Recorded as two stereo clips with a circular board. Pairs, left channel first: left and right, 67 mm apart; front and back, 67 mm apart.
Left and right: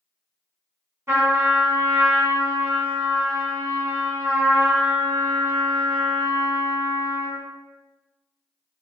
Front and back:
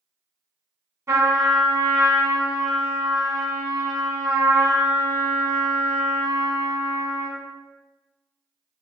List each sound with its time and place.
1.1 s a trumpet: 140° right, 1.8 m